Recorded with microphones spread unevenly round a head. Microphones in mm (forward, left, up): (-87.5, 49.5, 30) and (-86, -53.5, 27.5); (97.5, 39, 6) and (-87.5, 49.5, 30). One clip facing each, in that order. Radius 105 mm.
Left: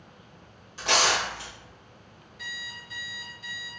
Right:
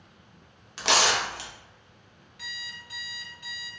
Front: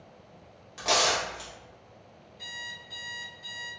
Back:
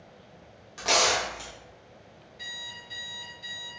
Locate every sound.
0.8 s tearing paper: 90° right, 0.7 m
2.4 s an alarm clock: 115° right, 1.8 m